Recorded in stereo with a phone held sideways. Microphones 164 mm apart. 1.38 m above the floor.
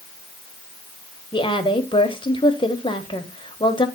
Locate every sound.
1.3 s a woman speaking: 30° left (ahead or behind), 1.1 m